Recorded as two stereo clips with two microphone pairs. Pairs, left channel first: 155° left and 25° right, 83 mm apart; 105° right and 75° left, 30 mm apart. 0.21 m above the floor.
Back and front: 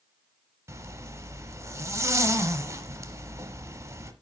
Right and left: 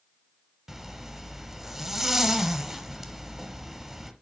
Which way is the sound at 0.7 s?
Straight ahead.